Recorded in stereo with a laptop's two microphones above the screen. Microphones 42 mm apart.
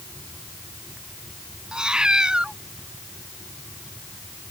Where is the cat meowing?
20° right (ahead or behind).